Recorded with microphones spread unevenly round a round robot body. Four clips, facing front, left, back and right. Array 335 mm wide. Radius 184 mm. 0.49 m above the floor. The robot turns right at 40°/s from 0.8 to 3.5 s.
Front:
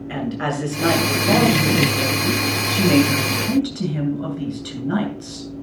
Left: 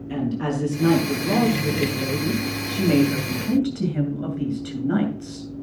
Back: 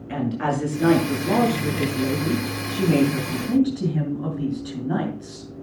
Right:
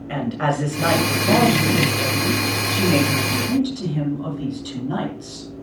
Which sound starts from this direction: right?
A woman speaking, at 0.1 s.